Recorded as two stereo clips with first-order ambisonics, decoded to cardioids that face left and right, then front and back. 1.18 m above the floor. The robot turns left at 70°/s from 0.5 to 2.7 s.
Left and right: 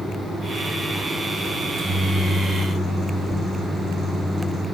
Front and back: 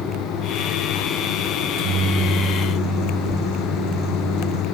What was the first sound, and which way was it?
A microwave, 135° right.